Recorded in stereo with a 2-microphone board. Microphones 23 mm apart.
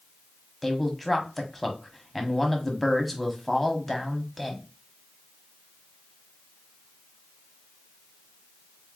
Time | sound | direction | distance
0.6 | a man speaking | 5° left (ahead or behind) | 1.0 m